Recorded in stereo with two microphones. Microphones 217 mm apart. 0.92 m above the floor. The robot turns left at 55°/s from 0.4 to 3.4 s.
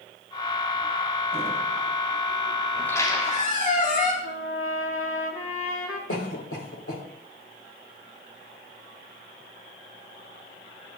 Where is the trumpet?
75° left (ahead or behind), 2 m.